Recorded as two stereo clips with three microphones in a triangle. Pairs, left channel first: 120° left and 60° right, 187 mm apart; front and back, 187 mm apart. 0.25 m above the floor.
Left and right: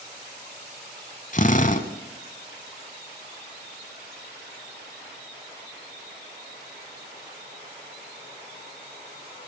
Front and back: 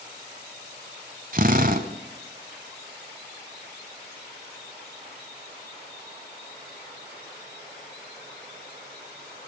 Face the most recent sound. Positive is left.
turn(degrees=155)